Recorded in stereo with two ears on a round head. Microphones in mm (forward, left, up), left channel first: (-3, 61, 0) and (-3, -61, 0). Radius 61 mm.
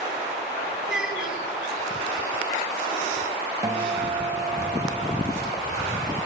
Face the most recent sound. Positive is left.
turn(degrees=-25)  # may be behind; listen again after turning